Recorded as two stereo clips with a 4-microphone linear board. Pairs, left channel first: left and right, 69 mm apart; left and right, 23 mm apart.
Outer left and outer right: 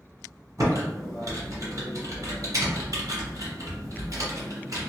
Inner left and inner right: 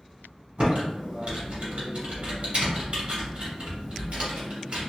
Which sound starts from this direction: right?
Typing on a keyboard, at 0.6 s.